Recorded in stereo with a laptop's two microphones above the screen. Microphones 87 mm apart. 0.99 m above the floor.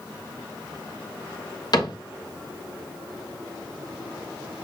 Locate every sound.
1.7 s a cupboard door: 50° left (ahead or behind), 1.0 m